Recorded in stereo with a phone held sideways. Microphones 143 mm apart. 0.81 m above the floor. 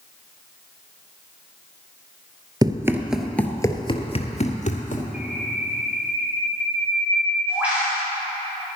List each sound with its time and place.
2.6 s running footsteps: 25° right (ahead or behind), 0.8 m; by 5.0 s 60° left (ahead or behind), 1.4 m
5.1 s a bird: 10° right (ahead or behind), 4 m